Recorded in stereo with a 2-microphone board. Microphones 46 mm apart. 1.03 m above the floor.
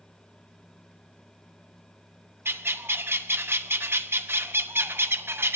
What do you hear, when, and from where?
2.5 s a bird: 55° right (ahead or behind), 0.9 m